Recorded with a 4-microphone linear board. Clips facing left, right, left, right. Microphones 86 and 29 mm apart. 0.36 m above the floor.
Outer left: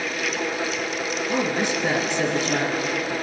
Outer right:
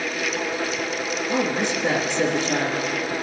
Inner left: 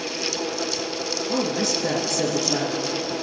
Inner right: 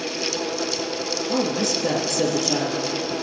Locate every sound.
1.3 s a woman speaking: 20° left (ahead or behind), 4.5 m